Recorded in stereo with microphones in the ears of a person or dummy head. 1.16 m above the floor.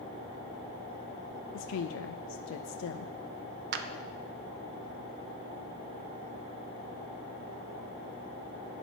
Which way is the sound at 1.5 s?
75° left (ahead or behind).